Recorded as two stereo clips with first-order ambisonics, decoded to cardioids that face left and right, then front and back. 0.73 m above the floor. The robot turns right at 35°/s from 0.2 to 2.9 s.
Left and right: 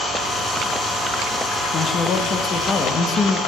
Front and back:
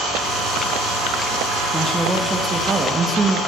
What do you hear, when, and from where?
1.7 s a man speaking: 85° left, 0.8 m; by 3.4 s 125° left, 0.8 m